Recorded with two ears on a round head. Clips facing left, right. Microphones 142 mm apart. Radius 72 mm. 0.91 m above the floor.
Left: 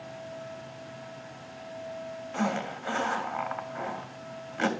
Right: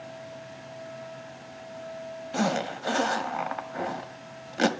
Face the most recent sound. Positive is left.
turn(degrees=-40)  # may be behind; listen again after turning